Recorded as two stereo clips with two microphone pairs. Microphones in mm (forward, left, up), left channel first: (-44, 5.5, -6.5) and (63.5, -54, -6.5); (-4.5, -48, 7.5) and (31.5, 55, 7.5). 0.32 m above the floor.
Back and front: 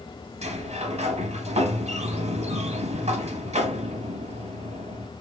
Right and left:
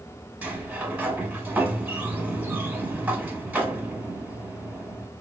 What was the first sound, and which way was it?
A sliding door, 5° right.